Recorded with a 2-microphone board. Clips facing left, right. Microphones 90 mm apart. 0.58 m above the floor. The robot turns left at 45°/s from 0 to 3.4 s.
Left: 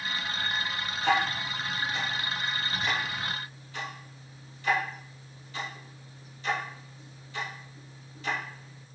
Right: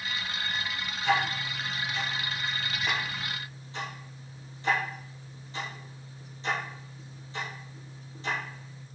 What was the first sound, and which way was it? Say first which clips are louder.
Ticking: left 1 dB; 75° left (ahead or behind).